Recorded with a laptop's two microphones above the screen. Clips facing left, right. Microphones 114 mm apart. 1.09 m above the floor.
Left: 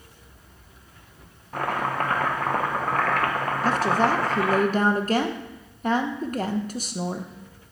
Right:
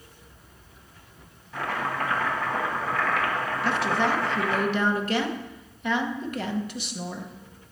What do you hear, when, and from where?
1.5 s chopping: 50° left (ahead or behind), 1.1 m
3.6 s a woman speaking: 40° left (ahead or behind), 0.7 m